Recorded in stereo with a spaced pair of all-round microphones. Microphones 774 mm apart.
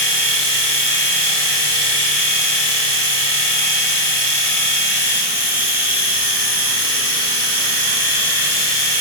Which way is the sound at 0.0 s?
50° left (ahead or behind).